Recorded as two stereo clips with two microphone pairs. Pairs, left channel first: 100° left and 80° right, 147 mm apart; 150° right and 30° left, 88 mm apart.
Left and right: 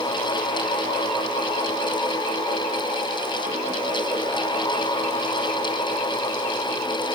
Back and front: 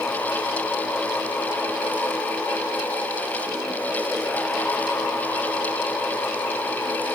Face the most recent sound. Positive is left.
No sound to turn to.